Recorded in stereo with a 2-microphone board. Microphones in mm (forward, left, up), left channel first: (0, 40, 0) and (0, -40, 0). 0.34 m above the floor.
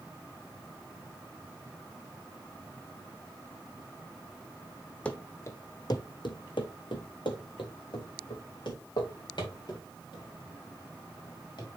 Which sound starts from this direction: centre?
Running footsteps, at 5.0 s.